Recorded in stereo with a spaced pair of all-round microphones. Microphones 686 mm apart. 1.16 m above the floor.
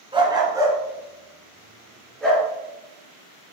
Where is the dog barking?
5° right (ahead or behind), 3 m; by 2.5 s centre (ahead or behind), 5 m.